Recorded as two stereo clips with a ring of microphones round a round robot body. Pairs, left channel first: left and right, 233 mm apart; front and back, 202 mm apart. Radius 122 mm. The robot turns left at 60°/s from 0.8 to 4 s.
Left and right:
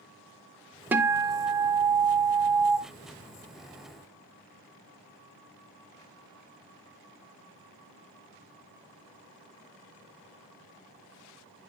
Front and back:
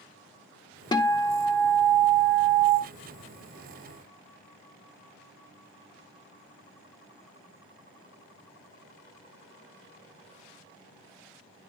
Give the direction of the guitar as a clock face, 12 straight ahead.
1 o'clock.